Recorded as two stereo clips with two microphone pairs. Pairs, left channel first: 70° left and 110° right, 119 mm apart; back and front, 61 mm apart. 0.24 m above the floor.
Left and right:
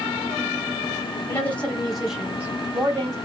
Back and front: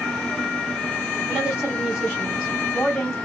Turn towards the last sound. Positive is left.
turn(degrees=-110)